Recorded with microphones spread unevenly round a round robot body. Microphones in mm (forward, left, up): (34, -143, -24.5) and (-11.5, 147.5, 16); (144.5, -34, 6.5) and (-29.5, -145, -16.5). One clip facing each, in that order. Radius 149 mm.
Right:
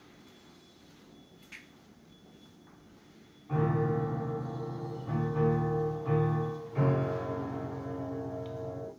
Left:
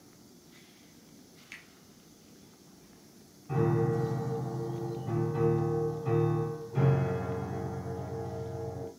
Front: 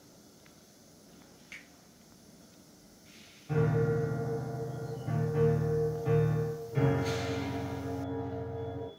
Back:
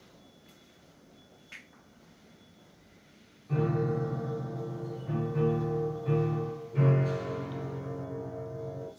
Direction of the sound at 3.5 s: 35° left.